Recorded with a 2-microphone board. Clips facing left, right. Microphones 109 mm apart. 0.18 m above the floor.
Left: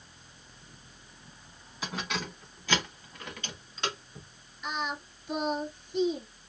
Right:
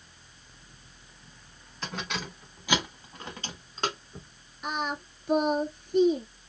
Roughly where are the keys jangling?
Centre.